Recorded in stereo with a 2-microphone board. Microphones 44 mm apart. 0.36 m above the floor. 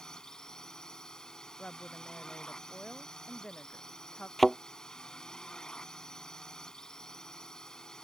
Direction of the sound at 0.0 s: 15° left (ahead or behind).